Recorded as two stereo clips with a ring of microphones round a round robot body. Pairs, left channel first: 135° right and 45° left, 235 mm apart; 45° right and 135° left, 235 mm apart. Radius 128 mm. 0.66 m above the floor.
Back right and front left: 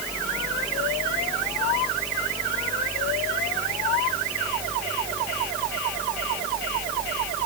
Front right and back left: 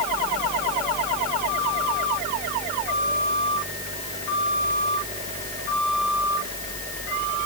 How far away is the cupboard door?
No cupboard door in this recording.